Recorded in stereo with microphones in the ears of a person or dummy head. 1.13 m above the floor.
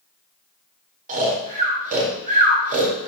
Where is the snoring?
35° right (ahead or behind), 0.7 m.